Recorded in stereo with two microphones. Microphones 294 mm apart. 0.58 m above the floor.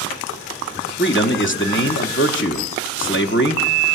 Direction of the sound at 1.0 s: 40° left (ahead or behind).